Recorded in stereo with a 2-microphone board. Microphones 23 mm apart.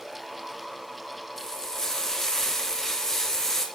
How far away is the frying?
About 1.3 m.